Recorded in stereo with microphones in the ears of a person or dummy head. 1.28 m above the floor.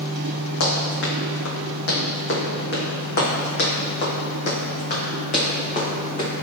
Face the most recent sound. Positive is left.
turn(degrees=35)  # may be behind; listen again after turning